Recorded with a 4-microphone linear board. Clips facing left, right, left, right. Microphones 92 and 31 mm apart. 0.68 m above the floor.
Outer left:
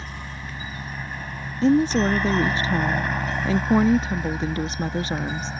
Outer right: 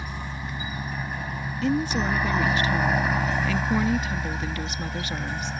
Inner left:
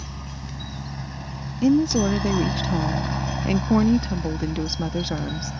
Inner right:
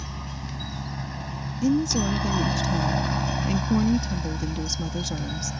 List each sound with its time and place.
0.0 s a helicopter: 10° right (ahead or behind); by 5.6 s 5° left (ahead or behind)
1.6 s a woman speaking: 30° left (ahead or behind)